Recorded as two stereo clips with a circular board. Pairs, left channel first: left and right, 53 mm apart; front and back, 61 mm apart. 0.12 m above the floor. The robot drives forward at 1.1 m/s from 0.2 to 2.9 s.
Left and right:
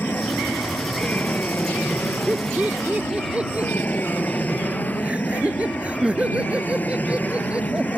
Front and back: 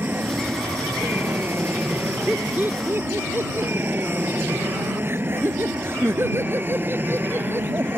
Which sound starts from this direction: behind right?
Laughter, at 2.3 s.